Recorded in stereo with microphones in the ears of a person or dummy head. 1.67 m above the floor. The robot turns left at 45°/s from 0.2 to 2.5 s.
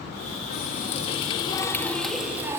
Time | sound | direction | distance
0.5 | a running tap | 70° left | 1.5 m